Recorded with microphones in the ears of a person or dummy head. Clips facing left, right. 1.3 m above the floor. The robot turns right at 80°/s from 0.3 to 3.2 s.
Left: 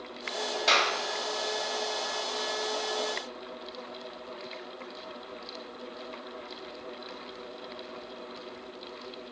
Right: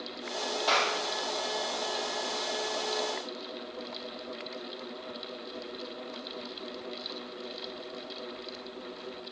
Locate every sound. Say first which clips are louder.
0.7 s a clap: even; 25° left (ahead or behind), 3 m; by 0.9 s 50° left (ahead or behind), 3 m